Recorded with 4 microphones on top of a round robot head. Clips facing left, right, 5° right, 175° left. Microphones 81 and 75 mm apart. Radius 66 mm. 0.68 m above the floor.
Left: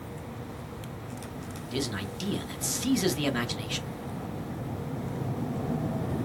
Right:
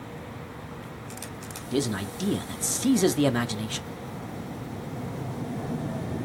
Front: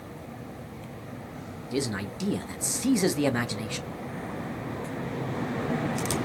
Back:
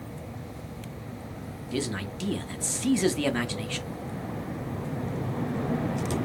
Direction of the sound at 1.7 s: 70° right.